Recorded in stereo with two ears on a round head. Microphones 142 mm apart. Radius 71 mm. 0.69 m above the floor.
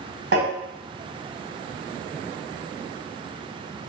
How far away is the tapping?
About 1.3 m.